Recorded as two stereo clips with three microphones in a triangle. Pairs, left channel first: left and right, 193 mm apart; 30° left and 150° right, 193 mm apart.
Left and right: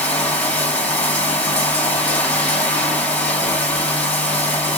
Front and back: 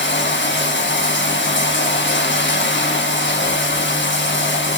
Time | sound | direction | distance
0.0 | running water | 5° left | 5 m